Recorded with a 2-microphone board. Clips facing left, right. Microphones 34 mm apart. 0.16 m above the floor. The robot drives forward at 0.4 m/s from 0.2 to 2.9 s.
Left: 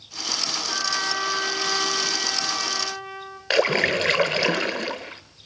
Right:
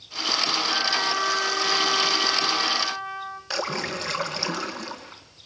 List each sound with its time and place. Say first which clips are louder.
0.7 s a trumpet: right 2 dB; 5° left (ahead or behind), 0.9 m; by 3.4 s centre (ahead or behind), 1.7 m
3.5 s a splash: left 9 dB; 50° left (ahead or behind), 0.9 m